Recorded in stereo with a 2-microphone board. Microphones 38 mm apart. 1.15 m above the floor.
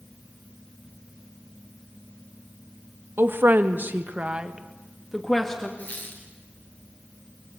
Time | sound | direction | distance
3.2 | a woman speaking | 75° right (ahead or behind) | 2 m
5.8 | a squeak | 50° left (ahead or behind) | 5.5 m